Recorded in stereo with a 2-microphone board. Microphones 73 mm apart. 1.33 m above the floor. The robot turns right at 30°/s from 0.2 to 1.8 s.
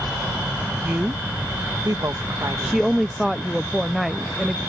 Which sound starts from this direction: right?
A woman speaking, at 0.8 s.